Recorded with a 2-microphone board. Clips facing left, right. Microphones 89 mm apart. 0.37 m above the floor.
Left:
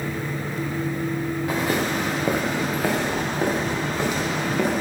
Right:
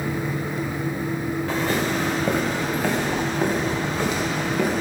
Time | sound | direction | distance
1.5 | footsteps | 15° left (ahead or behind) | 2.5 m